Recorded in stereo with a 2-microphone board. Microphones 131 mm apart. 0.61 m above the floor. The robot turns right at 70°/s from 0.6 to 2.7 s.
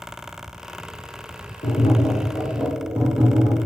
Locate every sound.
1.6 s tapping: 115° left, 2.5 m; by 3.6 s 170° right, 2.5 m